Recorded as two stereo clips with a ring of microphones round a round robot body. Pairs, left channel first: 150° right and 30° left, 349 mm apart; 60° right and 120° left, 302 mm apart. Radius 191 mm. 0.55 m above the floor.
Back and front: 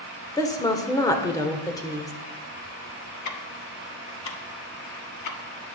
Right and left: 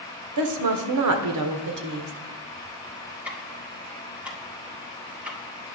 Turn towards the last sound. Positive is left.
turn(degrees=-155)